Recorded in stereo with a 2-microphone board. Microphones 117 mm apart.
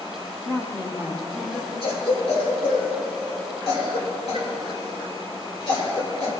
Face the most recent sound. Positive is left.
turn(degrees=60)  # may be behind; listen again after turning